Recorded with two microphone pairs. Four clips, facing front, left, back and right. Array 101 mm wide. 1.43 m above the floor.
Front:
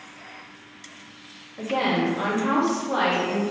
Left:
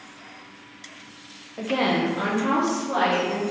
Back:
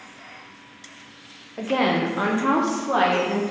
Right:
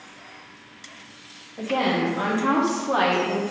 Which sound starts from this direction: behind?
A woman speaking, at 1.6 s.